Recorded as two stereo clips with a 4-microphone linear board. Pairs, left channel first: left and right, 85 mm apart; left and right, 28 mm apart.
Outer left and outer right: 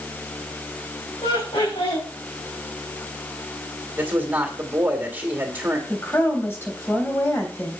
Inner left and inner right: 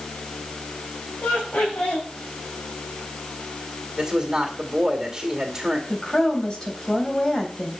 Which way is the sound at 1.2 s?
75° left (ahead or behind).